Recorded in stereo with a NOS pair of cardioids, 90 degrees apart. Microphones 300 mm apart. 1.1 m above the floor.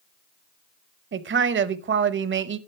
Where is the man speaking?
40° right, 0.9 m.